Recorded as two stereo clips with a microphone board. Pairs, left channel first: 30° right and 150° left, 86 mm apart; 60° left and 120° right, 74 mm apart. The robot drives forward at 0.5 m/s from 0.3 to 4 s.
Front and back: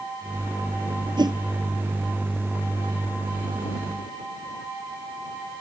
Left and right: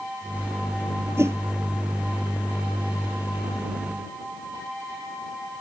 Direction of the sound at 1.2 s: 175° right.